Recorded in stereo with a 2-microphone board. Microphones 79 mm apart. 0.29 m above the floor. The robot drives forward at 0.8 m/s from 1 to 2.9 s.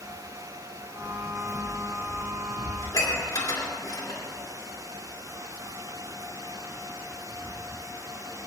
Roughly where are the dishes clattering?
Left.